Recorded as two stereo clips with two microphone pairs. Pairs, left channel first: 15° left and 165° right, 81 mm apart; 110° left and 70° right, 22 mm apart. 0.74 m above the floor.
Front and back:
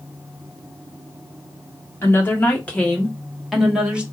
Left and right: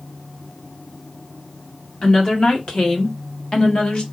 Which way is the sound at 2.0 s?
75° left.